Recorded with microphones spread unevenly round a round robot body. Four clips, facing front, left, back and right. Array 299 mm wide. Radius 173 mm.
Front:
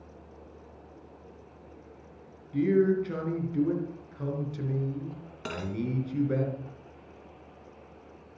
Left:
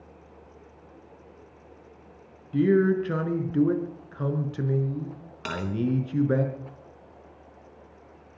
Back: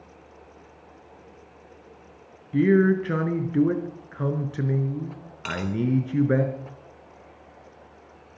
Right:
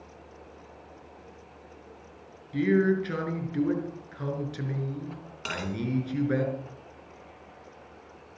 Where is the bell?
30° left, 3 m.